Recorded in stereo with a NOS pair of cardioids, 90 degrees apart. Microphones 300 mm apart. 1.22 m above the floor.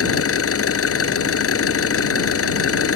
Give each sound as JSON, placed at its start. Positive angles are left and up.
{"t": 0.0, "sound": "an engine running", "azimuth_deg": 50}